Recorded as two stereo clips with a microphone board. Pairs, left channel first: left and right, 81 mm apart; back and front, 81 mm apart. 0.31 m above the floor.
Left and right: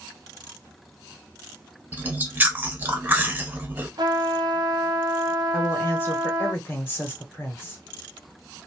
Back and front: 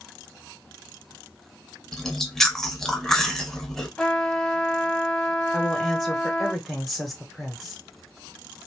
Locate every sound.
1.9 s chewing: 105° right, 0.6 m
4.0 s a trumpet: 100° right, 0.6 m
5.5 s a woman speaking: 90° left, 1.0 m